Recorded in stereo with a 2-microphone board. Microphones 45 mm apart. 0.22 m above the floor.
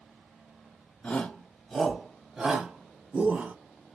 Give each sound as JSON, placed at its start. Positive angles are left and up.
{"t": 1.0, "sound": "a shout", "side_deg": 20, "distance_m": 1.1}